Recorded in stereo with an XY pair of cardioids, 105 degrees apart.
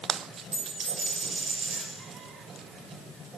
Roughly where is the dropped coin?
Ahead right.